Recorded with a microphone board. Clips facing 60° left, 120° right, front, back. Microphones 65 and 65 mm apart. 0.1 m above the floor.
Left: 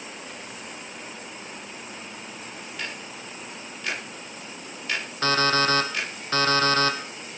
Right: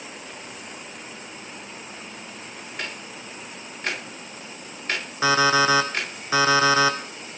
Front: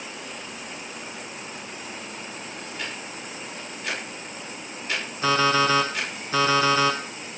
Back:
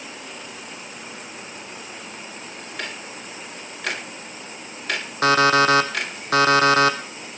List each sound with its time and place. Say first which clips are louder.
2.8 s ticking: right 2 dB, back 3 dB; 170° right, 10 m
5.2 s an alarm clock: right 4 dB, back 5 dB; 160° left, 2.5 m